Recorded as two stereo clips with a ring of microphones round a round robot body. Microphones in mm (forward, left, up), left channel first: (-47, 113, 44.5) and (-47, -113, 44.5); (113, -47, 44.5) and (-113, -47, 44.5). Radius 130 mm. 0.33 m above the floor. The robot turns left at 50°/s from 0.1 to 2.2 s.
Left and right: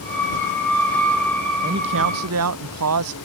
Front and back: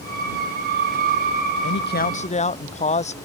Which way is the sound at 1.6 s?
30° right.